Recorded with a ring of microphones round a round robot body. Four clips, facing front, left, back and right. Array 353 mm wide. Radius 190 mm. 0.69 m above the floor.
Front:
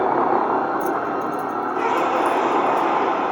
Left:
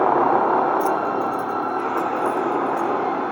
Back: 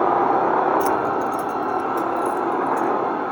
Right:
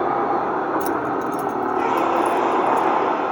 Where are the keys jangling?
145° right, 0.6 m; by 3.0 s 110° right, 3 m.